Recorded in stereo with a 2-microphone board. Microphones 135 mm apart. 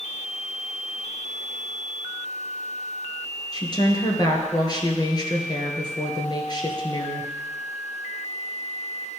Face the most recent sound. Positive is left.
turn(degrees=30)  # may be behind; listen again after turning